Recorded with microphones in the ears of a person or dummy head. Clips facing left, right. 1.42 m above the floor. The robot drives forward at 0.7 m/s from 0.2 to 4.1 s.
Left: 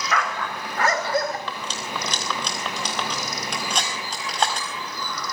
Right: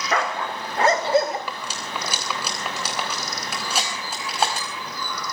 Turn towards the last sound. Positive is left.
turn(degrees=-5)  # may be behind; listen again after turning